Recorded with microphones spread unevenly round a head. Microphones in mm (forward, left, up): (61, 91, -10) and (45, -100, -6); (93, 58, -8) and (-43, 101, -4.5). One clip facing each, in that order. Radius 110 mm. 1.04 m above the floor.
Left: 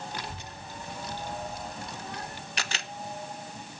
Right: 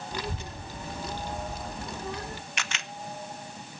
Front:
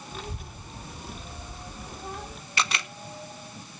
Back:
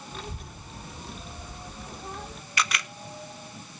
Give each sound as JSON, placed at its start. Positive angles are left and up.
{"t": 0.1, "sound": "a child speaking", "azimuth_deg": -105, "distance_m": 1.1}
{"t": 2.6, "sound": "a camera shutter", "azimuth_deg": 40, "distance_m": 1.0}